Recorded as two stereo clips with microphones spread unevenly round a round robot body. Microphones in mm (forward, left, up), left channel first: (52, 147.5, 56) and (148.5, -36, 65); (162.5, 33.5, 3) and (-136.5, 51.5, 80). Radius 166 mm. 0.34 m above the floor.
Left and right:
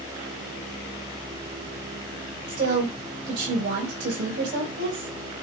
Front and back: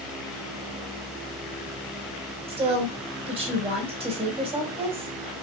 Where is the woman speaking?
105° right, 3 m.